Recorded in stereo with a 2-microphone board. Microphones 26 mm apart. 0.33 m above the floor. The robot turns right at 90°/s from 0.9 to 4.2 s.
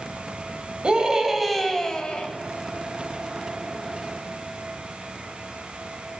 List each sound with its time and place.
0.8 s a scream: 55° right, 1.5 m; by 2.3 s 65° left, 1.5 m